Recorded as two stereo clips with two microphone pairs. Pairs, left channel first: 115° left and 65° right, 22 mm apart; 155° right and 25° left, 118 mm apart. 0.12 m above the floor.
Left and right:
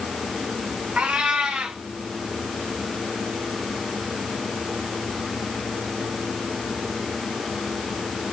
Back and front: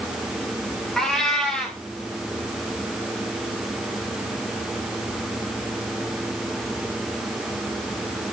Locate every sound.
1.0 s a cat meowing: 70° right, 3 m